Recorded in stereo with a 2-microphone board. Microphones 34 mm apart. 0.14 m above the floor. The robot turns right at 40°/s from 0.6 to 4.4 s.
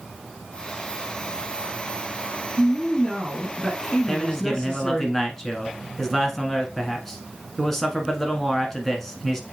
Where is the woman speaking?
10° right (ahead or behind), 1.4 m; by 5.1 s 20° left (ahead or behind), 1.4 m.